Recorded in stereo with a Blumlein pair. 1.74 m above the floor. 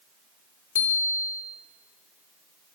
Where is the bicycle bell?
60° left, 3.5 m.